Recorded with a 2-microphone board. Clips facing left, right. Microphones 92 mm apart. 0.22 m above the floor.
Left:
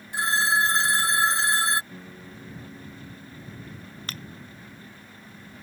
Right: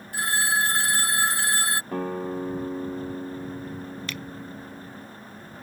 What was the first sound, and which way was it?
A phone ringing, 25° left (ahead or behind).